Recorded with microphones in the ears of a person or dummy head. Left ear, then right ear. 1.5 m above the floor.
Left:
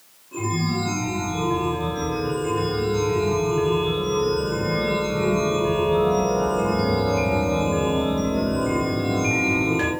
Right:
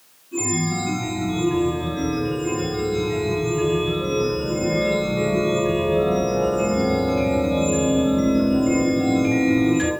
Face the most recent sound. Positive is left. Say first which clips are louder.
# right 2 dB
turn(degrees=35)  # may be behind; listen again after turning